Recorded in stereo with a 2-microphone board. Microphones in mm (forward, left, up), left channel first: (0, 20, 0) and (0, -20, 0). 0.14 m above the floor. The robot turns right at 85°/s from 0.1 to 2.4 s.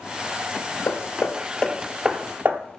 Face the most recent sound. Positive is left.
turn(degrees=-40)  # may be behind; listen again after turning